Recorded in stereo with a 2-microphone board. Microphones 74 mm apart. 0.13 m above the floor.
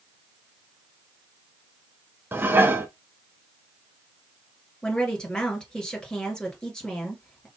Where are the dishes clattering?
30° right (ahead or behind), 0.9 m.